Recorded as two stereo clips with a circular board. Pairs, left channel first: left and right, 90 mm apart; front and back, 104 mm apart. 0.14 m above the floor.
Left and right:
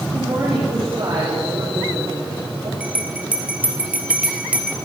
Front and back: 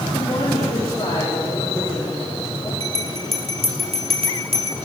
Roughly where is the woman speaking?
Ahead right.